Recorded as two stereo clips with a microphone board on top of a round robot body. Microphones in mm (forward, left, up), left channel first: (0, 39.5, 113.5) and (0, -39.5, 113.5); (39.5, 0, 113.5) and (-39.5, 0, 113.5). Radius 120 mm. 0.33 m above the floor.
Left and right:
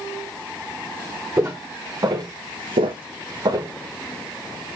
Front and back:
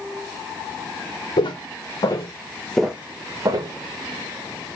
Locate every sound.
1.4 s footsteps: 30° right, 2.5 m; by 3.7 s 145° right, 1.7 m